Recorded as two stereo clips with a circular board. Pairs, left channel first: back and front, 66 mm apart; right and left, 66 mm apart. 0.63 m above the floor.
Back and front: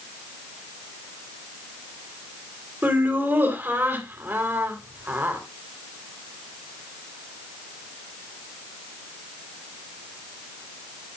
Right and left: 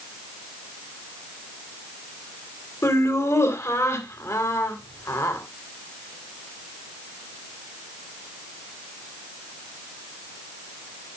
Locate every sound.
2.8 s laughter: 55° right, 2.5 m